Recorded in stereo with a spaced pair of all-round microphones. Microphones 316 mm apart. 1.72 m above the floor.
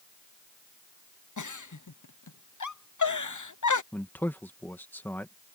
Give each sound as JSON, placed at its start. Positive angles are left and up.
{"t": 1.4, "sound": "a giggle", "side_deg": 70}
{"t": 3.9, "sound": "a man speaking", "side_deg": 5}